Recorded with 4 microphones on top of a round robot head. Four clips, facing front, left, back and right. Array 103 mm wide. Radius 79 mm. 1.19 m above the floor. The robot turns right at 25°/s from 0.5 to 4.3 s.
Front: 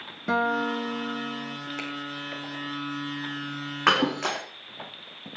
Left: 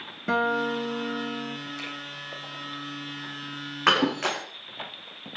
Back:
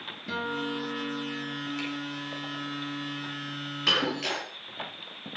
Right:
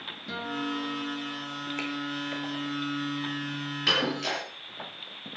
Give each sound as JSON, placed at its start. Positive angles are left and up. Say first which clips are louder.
{"t": 0.3, "sound": "a guitar", "louder": "left 8 dB, front 7 dB", "azimuth_deg": 45, "distance_m": 1.2}
{"t": 1.8, "sound": "a finger snap", "louder": "right 4 dB, even", "azimuth_deg": -45, "distance_m": 4.0}
{"t": 3.9, "sound": "breaking glass", "louder": "left 6 dB, front 6 dB", "azimuth_deg": 35, "distance_m": 2.0}